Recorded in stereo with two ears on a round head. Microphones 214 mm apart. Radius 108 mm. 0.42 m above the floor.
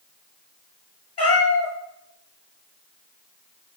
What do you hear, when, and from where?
1.2 s a cat meowing: 20° left (ahead or behind), 2 m